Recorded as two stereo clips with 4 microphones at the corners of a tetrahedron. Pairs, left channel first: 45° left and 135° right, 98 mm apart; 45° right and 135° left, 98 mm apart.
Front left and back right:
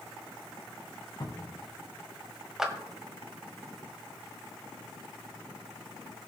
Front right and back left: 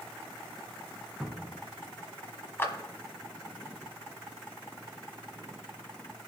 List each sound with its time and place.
1.2 s a cupboard door: 55° left, 1.5 m
2.6 s a clap: 55° right, 1.2 m